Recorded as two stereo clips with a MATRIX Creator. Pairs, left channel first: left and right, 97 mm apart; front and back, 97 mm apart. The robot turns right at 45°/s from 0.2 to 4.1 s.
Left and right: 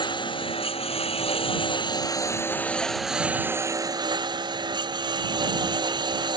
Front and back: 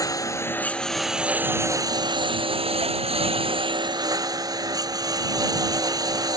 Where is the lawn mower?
55° left; by 6.4 s 130° right.